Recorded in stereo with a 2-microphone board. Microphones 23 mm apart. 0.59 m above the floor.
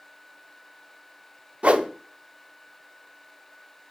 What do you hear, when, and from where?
1.6 s a whoosh: 60° right (ahead or behind), 0.6 m